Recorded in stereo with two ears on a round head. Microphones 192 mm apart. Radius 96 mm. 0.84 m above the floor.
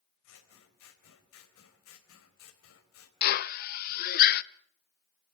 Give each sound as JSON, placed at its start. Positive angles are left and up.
{"t": 0.2, "sound": "scissors", "side_deg": 75, "distance_m": 4.0}
{"t": 3.2, "sound": "a drill", "side_deg": 45, "distance_m": 0.6}